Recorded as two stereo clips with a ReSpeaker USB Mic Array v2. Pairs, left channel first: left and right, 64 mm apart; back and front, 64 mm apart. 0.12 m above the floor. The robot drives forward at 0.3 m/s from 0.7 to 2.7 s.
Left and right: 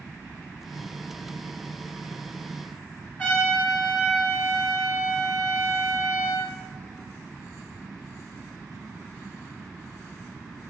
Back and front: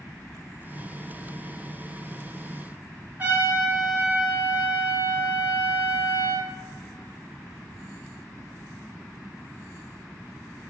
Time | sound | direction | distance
3.2 | a trumpet | 40° left | 1.0 m